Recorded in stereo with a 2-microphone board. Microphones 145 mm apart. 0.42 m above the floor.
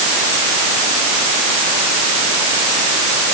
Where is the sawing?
No sawing in this recording.